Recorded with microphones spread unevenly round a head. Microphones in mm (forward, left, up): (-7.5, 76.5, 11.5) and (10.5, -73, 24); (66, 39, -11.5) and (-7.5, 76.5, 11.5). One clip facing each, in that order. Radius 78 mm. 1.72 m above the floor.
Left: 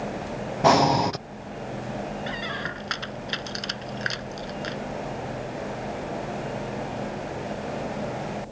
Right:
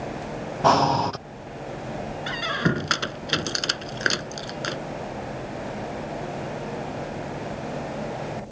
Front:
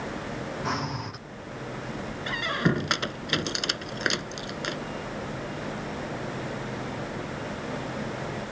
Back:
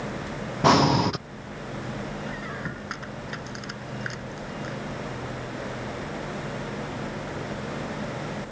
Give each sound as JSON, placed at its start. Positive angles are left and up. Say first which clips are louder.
{"t": 0.6, "sound": "breathing", "louder": "left 1 dB, back 15 dB", "azimuth_deg": 175}
{"t": 2.3, "sound": "a squeak", "louder": "right 6 dB, front 7 dB", "azimuth_deg": -55}